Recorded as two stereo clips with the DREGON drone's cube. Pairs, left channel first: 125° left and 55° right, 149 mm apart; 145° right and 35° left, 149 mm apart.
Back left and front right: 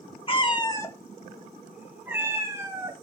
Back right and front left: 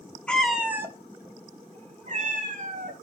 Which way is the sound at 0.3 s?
135° left.